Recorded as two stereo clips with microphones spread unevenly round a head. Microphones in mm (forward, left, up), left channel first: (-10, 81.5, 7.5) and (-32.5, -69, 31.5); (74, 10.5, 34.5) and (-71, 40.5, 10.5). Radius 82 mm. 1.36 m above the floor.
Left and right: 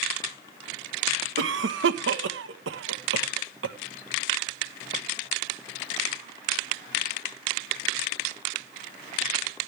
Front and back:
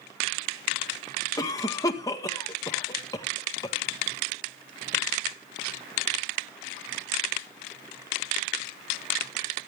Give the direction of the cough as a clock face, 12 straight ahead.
3 o'clock.